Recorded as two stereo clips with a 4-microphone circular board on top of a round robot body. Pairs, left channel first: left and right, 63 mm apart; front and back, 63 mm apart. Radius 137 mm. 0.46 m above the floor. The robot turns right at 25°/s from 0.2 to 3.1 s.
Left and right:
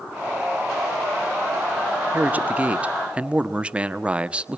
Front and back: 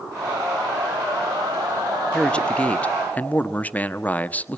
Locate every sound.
2.1 s a man speaking: 60° right, 1.4 m; by 4.6 s 35° right, 1.4 m